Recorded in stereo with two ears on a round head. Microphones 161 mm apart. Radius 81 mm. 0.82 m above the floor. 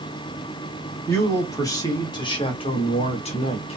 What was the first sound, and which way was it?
A man speaking, 15° left (ahead or behind).